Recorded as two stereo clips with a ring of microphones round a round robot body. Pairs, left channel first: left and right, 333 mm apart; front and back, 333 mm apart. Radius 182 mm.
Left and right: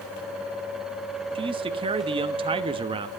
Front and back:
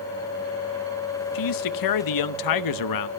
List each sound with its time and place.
1.4 s a man speaking: 15° right, 1.2 m